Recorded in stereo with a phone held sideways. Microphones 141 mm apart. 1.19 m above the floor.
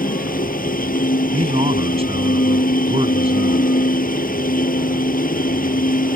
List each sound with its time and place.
0.0 s a machine running: 85° left
1.3 s a man speaking: 45° right (ahead or behind)